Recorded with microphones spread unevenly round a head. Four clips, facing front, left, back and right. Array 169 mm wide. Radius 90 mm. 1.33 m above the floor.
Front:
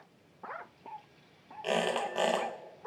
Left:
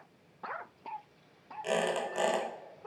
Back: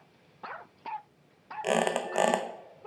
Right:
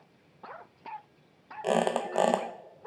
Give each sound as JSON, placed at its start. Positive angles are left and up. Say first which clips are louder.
{"t": 1.6, "sound": "a squeak", "louder": "right 4 dB, back 3 dB", "azimuth_deg": -115, "distance_m": 0.6}